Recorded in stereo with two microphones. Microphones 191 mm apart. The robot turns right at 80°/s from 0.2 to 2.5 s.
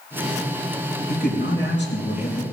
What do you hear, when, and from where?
1.1 s a man speaking: 50° left, 3 m; by 2.4 s 160° left, 3 m